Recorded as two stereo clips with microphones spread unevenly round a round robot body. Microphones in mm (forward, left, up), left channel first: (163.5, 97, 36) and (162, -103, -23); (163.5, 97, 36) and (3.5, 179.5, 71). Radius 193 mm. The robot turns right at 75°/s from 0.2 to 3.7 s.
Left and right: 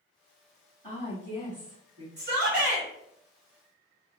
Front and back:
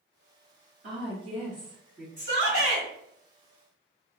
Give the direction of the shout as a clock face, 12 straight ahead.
3 o'clock.